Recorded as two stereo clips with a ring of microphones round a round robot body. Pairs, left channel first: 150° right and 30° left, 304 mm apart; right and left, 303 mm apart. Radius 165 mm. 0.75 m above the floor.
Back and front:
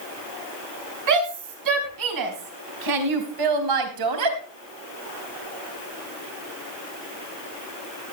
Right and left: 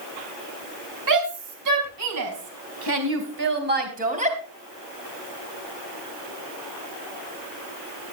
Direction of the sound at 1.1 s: 60° left.